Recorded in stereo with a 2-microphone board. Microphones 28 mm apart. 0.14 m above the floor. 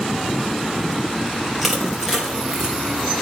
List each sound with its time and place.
1.6 s crushing: 10° right (ahead or behind), 4.5 m